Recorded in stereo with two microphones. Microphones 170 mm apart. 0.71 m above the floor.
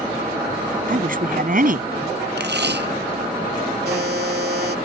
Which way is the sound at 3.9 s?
70° right (ahead or behind).